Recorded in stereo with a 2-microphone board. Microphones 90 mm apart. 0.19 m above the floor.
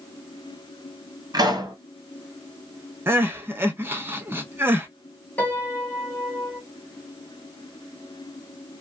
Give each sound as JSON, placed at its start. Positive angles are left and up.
{"t": 1.3, "sound": "a pop", "side_deg": -45, "distance_m": 1.7}
{"t": 3.1, "sound": "crying", "side_deg": -25, "distance_m": 0.6}
{"t": 5.4, "sound": "a piano", "side_deg": 25, "distance_m": 1.4}